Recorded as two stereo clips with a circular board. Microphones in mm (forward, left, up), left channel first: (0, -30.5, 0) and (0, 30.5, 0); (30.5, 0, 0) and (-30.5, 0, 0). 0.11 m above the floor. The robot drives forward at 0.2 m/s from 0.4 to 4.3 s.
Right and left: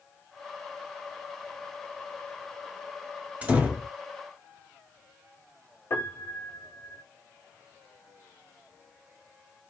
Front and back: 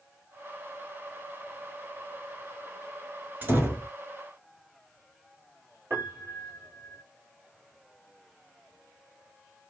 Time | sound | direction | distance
3.4 | a door slam | 140° left | 0.9 m
5.9 | a piano | 130° right | 1.3 m